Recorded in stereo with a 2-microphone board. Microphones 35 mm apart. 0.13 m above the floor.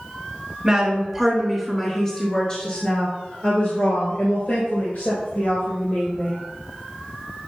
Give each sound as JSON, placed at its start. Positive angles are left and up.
{"t": 0.6, "sound": "a woman speaking", "side_deg": -20, "distance_m": 1.7}